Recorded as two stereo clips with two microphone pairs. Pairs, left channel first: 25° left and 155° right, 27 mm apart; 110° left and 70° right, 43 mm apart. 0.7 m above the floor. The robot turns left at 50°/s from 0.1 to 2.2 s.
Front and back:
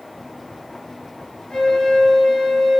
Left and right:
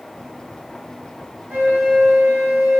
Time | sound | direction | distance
1.5 | a flute | 35° right | 1.2 m